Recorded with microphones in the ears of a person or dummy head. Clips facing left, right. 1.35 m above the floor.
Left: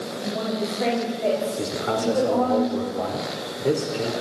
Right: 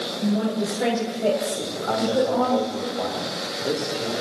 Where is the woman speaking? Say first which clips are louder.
Right 4 dB; 10° right (ahead or behind), 5.5 m.